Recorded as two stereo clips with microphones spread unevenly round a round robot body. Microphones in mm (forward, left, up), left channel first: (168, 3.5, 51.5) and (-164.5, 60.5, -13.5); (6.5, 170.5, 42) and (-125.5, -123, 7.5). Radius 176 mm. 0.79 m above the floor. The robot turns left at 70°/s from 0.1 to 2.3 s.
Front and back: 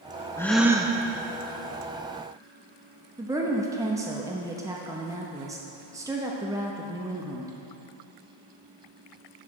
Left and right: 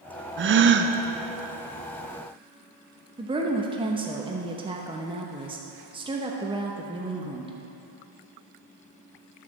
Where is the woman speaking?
150° right, 0.8 m.